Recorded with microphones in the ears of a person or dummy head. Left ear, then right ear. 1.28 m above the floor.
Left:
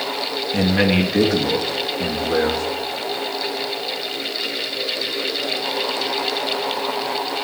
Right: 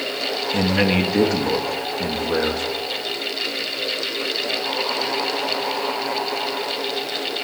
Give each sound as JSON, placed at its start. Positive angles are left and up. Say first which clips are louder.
{"t": 0.5, "sound": "a man speaking", "louder": "left 2 dB", "side_deg": -5, "distance_m": 2.0}